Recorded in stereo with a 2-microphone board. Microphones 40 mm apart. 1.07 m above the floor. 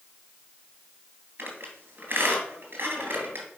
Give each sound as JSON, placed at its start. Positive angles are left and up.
{"t": 1.4, "sound": "a squeak", "side_deg": -60, "distance_m": 3.0}